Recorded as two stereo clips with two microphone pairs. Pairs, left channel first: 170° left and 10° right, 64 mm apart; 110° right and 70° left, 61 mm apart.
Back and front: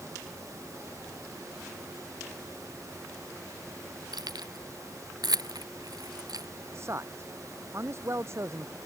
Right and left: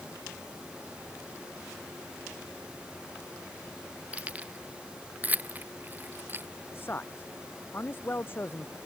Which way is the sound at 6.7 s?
55° right.